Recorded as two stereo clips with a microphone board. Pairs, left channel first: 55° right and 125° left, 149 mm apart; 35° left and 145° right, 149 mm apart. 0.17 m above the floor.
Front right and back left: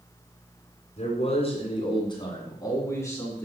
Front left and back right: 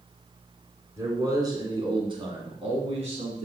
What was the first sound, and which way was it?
A man speaking, 80° right.